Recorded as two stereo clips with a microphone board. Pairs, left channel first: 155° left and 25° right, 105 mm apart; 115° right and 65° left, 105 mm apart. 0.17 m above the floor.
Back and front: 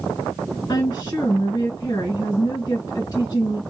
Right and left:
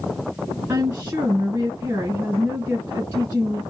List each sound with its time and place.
0.7 s a woman speaking: 105° left, 2 m